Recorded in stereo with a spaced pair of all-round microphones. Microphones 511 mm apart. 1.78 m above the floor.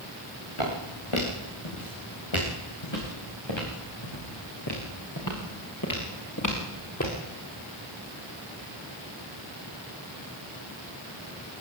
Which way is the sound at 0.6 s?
75° left (ahead or behind).